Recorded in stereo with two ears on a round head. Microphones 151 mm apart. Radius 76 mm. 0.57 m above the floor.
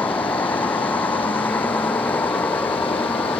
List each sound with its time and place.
0.0 s a vehicle: 10° left (ahead or behind)